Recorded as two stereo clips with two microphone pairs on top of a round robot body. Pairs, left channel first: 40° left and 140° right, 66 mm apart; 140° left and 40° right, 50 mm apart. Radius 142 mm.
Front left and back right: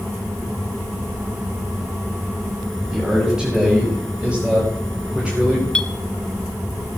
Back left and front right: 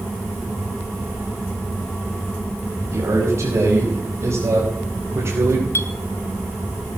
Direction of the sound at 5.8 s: 115° left.